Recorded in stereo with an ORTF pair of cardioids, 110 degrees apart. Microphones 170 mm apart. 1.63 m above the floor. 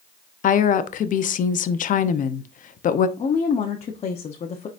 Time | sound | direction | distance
0.4 | a woman speaking | 50° left | 0.8 m
3.2 | a woman speaking | 40° left | 1.0 m